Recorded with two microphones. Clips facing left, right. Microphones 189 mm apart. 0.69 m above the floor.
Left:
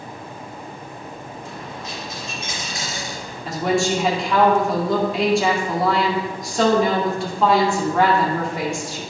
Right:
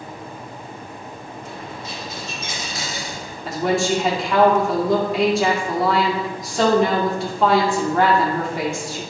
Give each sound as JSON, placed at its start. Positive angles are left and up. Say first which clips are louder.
{"t": 1.4, "sound": "a dropped coin", "louder": "right 1 dB", "side_deg": 0, "distance_m": 3.5}
{"t": 3.5, "sound": "a woman speaking", "louder": "even", "side_deg": 0, "distance_m": 1.8}